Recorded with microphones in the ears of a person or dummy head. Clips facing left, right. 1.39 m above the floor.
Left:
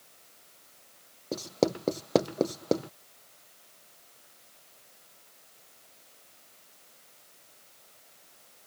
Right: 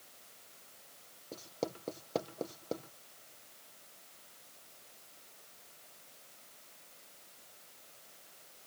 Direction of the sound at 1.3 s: 70° left (ahead or behind).